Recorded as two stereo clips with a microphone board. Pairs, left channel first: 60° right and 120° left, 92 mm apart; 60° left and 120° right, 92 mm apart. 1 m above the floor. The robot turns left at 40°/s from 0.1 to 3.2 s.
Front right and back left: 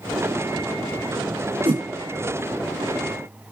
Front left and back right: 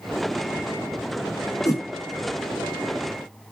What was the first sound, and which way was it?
A whoosh, 115° left.